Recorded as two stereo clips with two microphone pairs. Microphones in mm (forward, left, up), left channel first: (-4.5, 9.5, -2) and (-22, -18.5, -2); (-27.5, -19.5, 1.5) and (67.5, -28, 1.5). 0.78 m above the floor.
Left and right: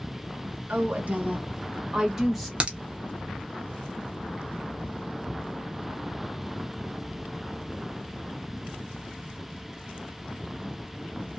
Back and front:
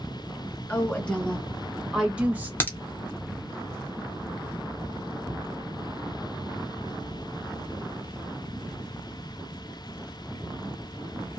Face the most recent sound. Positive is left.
turn(degrees=-135)